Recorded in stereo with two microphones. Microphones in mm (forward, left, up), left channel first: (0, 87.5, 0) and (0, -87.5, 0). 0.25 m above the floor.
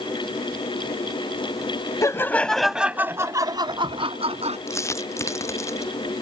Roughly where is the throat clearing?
No throat clearing in this recording.